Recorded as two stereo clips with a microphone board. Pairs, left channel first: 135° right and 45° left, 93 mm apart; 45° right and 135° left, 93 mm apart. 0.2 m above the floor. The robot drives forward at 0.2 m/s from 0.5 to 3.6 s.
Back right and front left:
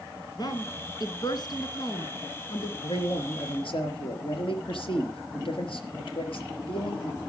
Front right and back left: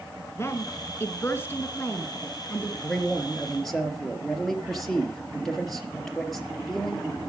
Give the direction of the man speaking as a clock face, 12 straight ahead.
4 o'clock.